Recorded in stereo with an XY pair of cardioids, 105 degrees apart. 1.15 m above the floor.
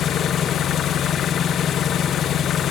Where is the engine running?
65° left, 0.9 m.